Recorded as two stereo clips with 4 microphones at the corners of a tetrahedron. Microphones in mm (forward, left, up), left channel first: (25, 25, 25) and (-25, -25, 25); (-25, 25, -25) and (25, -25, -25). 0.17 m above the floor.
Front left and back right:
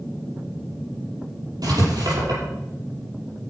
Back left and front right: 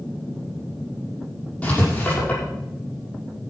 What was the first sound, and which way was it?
Writing, 150° right.